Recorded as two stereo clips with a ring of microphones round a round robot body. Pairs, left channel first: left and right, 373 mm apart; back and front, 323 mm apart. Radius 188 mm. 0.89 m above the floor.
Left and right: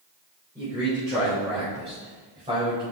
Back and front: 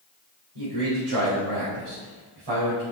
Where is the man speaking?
10° right, 4 m.